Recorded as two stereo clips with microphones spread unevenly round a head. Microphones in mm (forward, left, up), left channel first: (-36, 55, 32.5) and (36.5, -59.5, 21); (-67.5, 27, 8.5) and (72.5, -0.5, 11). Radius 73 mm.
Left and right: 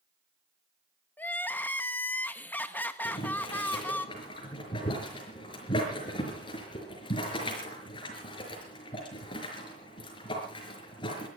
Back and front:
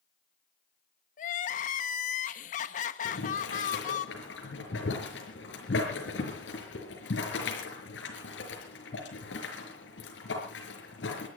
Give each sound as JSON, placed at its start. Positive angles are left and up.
{"t": 1.2, "sound": "crying", "azimuth_deg": -160, "distance_m": 1.2}
{"t": 3.0, "sound": "boiling", "azimuth_deg": 180, "distance_m": 5.0}